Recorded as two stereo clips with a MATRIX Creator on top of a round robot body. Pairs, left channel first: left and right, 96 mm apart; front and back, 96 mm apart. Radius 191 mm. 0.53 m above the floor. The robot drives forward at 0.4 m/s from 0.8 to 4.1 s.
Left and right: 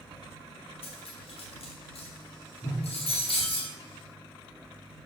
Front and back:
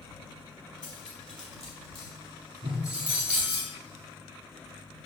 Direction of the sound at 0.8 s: 80° left.